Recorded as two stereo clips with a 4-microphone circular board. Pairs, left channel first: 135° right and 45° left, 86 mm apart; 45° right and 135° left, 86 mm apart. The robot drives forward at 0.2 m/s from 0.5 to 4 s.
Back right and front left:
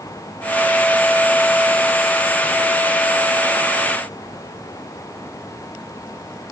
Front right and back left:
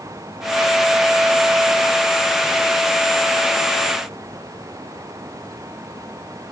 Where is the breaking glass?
I don't hear breaking glass.